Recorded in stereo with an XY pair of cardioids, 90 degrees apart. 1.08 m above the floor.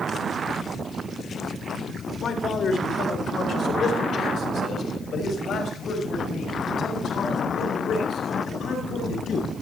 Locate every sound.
2.2 s a man speaking: 60° left, 3.5 m; by 9.5 s 70° left, 8.5 m